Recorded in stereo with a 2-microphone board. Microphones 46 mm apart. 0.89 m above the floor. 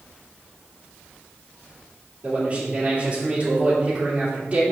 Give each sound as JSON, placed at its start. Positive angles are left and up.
{"t": 2.2, "sound": "a man speaking", "side_deg": -35, "distance_m": 3.0}